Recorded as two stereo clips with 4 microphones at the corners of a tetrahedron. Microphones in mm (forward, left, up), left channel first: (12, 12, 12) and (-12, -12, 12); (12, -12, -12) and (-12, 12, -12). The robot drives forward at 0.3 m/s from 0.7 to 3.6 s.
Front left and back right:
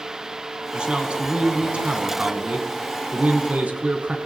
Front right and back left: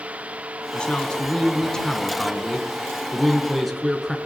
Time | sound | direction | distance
0.7 | a man speaking | 90° right | 1.5 m